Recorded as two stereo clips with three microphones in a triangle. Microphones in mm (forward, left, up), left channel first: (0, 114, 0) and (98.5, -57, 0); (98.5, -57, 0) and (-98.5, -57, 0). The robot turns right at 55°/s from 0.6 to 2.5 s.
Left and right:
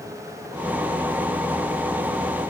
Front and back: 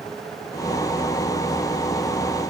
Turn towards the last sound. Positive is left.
No sound to turn to.